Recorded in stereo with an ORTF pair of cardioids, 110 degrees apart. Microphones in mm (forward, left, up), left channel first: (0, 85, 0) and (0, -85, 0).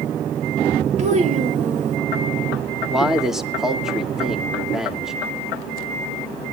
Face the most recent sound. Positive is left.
turn(degrees=0)